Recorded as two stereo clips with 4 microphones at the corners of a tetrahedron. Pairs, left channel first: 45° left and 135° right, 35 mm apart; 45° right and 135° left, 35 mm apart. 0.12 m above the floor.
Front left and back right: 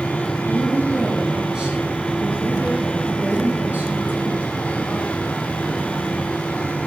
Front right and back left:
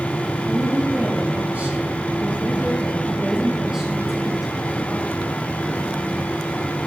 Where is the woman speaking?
145° left, 2.5 m; by 4.5 s 150° right, 2.5 m.